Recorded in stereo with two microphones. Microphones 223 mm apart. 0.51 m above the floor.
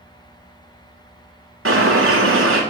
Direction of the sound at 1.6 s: 75° right (ahead or behind).